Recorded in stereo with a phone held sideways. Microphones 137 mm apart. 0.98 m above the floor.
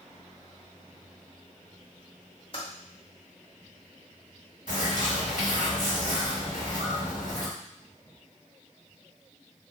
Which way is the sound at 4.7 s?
65° left (ahead or behind).